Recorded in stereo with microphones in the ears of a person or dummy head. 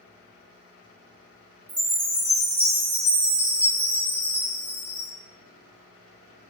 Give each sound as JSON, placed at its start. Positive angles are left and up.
{"t": 1.7, "sound": "a chime", "side_deg": -5, "distance_m": 1.7}